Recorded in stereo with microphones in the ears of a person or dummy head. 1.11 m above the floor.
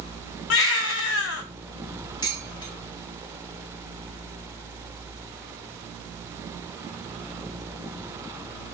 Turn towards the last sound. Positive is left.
turn(degrees=30)  # may be behind; listen again after turning